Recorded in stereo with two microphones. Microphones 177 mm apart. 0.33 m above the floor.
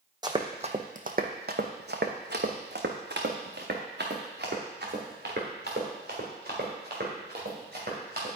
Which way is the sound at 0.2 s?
25° right (ahead or behind).